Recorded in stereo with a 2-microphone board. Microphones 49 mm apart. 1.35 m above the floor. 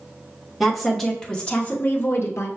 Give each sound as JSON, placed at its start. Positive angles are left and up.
{"t": 0.6, "sound": "a woman speaking", "side_deg": -5, "distance_m": 1.1}